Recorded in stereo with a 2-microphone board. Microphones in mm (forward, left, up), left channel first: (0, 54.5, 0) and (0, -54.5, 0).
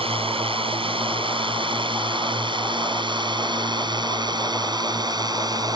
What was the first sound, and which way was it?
A drone, 60° right (ahead or behind).